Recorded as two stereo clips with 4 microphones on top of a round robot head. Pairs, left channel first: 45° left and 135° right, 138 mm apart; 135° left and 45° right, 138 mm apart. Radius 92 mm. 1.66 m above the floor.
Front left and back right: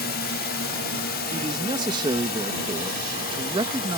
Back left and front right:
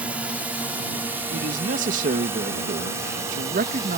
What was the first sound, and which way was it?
A drone, 35° left.